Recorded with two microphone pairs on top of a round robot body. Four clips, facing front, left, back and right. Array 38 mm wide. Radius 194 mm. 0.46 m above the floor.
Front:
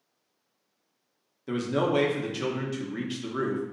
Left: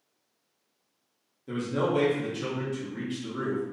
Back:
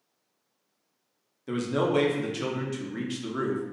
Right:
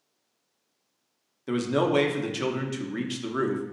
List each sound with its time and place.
1.5 s a man speaking: 90° right, 1.1 m